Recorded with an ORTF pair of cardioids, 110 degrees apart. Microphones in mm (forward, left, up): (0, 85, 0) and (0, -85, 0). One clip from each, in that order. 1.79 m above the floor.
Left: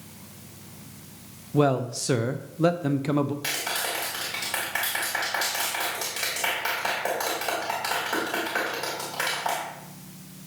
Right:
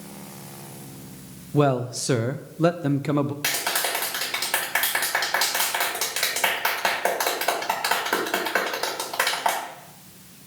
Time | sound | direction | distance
1.5 | a man speaking | 5° right | 0.7 m
3.4 | a clap | 40° right | 3 m